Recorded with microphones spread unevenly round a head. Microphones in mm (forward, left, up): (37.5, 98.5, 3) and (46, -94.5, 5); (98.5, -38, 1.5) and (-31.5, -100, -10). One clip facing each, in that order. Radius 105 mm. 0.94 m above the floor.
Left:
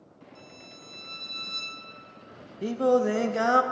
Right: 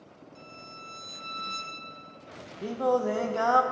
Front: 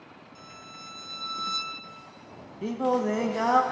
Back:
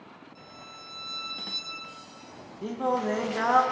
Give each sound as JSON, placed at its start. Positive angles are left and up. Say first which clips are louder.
{"t": 0.3, "sound": "a violin", "louder": "left 2 dB, even", "azimuth_deg": -5, "distance_m": 2.5}
{"t": 2.6, "sound": "singing", "louder": "left 4 dB, front 2 dB", "azimuth_deg": 100, "distance_m": 0.8}